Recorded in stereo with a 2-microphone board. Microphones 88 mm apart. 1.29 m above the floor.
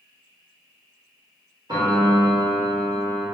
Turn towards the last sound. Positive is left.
turn(degrees=-55)  # may be behind; listen again after turning